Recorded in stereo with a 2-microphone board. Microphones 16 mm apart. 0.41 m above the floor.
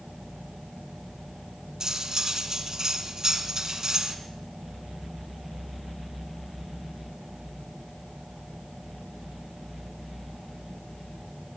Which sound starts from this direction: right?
Cutlery clinking, at 1.8 s.